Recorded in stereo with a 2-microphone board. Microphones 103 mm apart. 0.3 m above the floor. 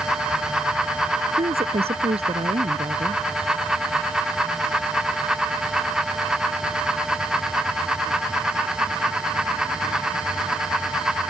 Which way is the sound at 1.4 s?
75° right (ahead or behind).